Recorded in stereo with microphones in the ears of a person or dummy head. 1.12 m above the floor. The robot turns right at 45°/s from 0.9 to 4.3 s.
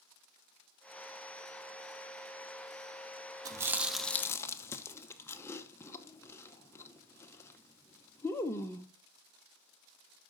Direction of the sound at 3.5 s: 20° right (ahead or behind).